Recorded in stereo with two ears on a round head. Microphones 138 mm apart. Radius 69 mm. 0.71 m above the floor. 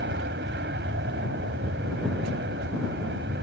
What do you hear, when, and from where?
0.0 s an aircraft: 75° right (ahead or behind)